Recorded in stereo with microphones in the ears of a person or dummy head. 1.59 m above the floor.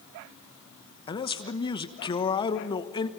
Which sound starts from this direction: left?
A man speaking, at 1.1 s.